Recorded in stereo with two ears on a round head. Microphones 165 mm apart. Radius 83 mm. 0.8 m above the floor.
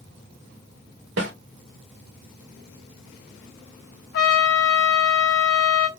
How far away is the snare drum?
About 1.4 m.